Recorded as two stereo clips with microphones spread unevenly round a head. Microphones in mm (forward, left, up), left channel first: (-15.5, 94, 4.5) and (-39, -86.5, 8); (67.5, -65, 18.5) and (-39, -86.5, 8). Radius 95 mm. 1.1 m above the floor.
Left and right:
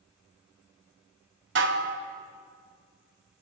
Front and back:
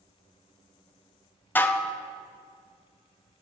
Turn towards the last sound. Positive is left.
turn(degrees=-60)